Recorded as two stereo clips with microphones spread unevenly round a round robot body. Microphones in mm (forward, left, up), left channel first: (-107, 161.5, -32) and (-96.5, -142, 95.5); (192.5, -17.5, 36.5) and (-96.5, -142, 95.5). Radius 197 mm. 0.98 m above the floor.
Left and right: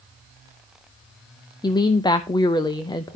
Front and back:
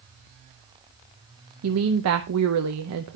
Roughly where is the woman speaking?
Behind left.